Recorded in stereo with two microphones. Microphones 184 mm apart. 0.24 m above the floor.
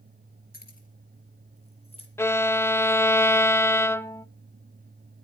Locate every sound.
0.5 s keys jangling: 55° left (ahead or behind), 3.5 m; by 2.1 s 30° left (ahead or behind), 4.5 m
2.2 s a violin: 15° left (ahead or behind), 0.6 m